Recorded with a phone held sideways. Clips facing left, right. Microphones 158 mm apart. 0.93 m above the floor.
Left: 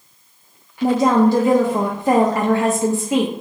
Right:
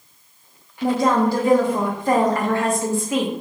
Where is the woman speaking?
20° left (ahead or behind), 0.5 m.